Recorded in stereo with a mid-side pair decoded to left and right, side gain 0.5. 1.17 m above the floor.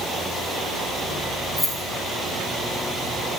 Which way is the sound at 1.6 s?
5° left.